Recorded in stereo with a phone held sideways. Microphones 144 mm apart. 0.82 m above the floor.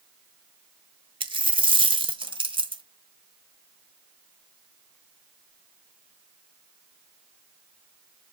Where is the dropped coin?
35° right (ahead or behind), 1.2 m.